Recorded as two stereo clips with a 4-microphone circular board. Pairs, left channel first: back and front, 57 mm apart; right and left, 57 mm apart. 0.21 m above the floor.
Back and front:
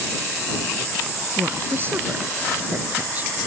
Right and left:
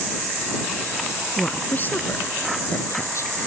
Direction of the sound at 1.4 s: 30° right.